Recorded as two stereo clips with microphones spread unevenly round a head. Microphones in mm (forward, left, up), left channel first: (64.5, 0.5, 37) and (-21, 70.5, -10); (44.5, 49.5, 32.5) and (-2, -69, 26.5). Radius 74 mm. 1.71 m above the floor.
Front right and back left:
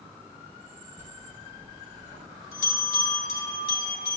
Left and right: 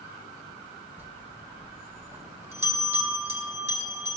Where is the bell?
45° right, 3 m.